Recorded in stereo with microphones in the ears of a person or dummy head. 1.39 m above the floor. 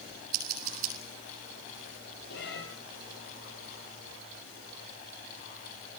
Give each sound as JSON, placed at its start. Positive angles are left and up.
{"t": 0.3, "sound": "scissors", "side_deg": -55, "distance_m": 8.0}
{"t": 2.3, "sound": "a cat meowing", "side_deg": 65, "distance_m": 4.5}